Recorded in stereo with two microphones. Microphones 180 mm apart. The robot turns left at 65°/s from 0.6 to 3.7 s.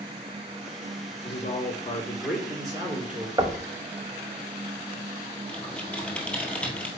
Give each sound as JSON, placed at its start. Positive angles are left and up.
{"t": 1.2, "sound": "a woman speaking", "azimuth_deg": 70, "distance_m": 3.0}
{"t": 3.4, "sound": "knocking", "side_deg": -25, "distance_m": 0.7}
{"t": 5.5, "sound": "typing on a keyboard", "side_deg": 5, "distance_m": 1.5}